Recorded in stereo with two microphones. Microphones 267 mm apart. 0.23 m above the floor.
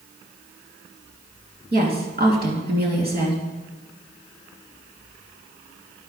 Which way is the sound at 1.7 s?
40° right (ahead or behind).